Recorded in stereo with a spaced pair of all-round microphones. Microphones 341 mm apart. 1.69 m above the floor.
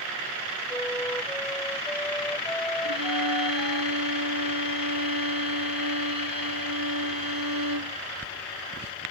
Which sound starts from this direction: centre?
A flute, at 0.7 s.